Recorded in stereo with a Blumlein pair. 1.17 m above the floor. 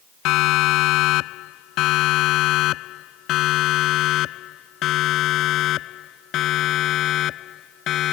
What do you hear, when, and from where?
0.2 s a siren: 40° left; by 8.1 s 30° left